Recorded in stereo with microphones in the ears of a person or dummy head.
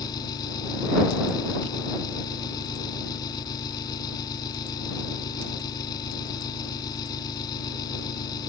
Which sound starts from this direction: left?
An engine running, at 0.0 s.